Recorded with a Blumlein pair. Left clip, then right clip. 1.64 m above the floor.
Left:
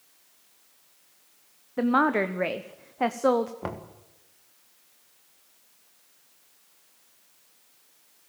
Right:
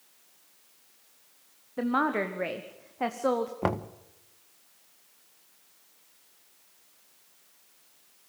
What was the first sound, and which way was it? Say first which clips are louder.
A woman speaking: left 4 dB; 15° left.